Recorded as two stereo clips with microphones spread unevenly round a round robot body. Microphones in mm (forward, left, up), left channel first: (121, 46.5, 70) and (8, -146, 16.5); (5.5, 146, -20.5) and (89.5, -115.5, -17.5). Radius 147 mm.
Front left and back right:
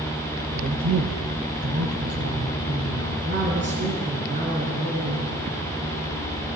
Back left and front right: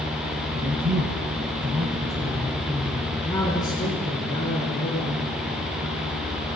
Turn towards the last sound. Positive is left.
turn(degrees=180)